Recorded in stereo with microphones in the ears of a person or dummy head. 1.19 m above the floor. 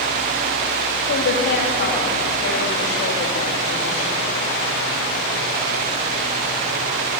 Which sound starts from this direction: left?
A woman speaking, at 1.1 s.